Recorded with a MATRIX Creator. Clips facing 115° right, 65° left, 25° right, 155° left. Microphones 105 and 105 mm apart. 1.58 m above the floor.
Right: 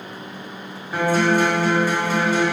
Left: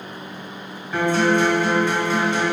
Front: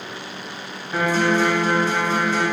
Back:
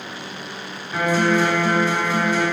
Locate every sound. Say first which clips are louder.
0.9 s a guitar: even, back 1 dB; 30° right, 1.7 m